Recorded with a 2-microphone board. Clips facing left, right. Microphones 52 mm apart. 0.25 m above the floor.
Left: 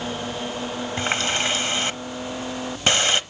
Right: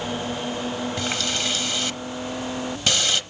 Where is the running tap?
35° left (ahead or behind), 0.9 m.